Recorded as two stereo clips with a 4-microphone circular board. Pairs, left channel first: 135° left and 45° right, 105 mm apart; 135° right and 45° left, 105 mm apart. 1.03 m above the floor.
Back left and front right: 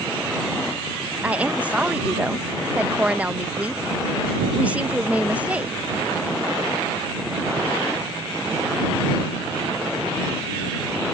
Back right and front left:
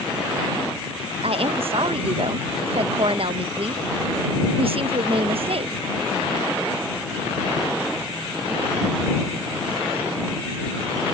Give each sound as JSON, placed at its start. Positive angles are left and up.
{"t": 1.2, "sound": "a woman speaking", "azimuth_deg": 30}